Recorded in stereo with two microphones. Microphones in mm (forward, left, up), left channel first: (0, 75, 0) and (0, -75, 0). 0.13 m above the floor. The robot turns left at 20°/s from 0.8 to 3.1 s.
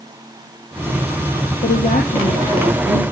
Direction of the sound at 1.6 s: 65° left (ahead or behind).